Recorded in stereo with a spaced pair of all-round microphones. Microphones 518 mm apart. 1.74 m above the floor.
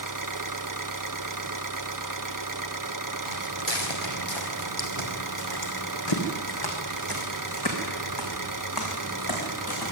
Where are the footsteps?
55° left (ahead or behind), 3.5 m; by 9.9 s 40° left (ahead or behind), 7 m.